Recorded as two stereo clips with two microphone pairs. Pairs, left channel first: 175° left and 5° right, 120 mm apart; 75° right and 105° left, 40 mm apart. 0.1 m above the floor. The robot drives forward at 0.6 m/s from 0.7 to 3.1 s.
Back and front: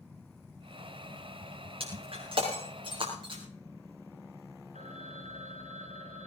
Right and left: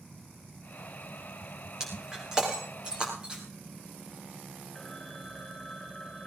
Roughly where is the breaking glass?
Ahead left.